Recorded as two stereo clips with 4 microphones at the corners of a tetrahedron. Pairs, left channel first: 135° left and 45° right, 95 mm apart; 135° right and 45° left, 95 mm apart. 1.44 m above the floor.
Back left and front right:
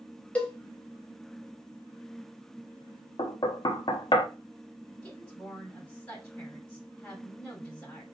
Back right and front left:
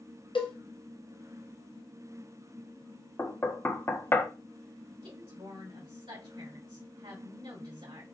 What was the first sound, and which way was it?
A cowbell, 150° right.